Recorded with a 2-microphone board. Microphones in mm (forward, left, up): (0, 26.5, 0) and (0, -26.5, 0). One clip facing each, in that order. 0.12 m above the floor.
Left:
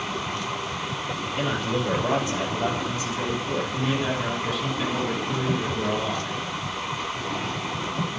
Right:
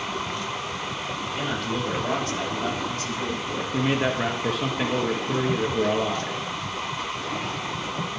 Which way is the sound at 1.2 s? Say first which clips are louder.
Left 2 dB; 10° left (ahead or behind).